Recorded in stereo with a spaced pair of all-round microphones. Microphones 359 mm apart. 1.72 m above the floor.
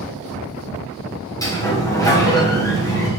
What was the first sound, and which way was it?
A sliding door, 10° left (ahead or behind).